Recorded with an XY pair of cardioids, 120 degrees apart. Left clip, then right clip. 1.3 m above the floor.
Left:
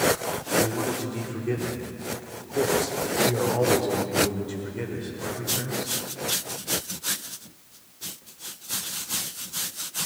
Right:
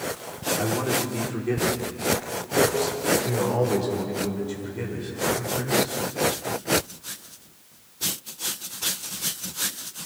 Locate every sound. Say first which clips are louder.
0.6 s a man speaking: right 1 dB; 20° right, 4 m; by 5.9 s 10° left, 6.5 m